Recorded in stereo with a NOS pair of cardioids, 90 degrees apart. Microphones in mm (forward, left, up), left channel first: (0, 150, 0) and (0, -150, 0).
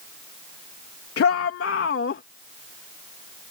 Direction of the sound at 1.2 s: 50° left.